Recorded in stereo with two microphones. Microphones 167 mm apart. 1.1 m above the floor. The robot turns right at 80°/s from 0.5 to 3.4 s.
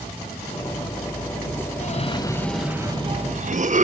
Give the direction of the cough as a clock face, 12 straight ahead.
8 o'clock.